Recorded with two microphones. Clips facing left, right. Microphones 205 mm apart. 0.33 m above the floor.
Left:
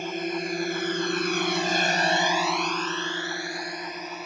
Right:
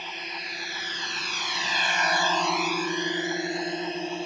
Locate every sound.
0.0 s a drone: 55° left (ahead or behind); by 4.3 s 30° right (ahead or behind)